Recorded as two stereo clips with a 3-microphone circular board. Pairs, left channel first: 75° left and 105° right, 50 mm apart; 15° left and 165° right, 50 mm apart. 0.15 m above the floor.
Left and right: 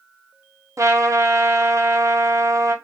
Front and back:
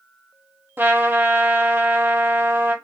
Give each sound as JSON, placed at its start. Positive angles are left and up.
{"t": 0.8, "sound": "a trumpet", "azimuth_deg": -115, "distance_m": 0.7}